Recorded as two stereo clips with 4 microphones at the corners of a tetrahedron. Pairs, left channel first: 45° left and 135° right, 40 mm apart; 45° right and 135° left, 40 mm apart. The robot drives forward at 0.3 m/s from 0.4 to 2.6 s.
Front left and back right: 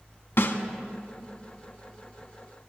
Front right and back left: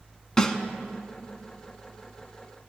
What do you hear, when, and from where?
0.4 s a snare drum: 30° left, 1.0 m; by 0.6 s 35° left, 1.0 m